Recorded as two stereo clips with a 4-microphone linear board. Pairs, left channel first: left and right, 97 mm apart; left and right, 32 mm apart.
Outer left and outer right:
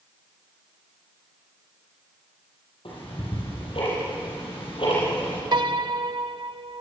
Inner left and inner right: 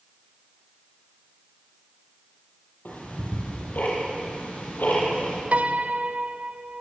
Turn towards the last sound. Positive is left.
turn(degrees=-50)  # may be behind; listen again after turning